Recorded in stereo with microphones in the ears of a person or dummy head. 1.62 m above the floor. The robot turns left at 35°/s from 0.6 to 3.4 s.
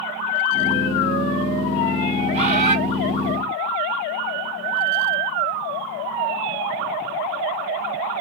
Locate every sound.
2.3 s a bird: 40° right (ahead or behind), 2 m; by 2.8 s 50° right (ahead or behind), 2 m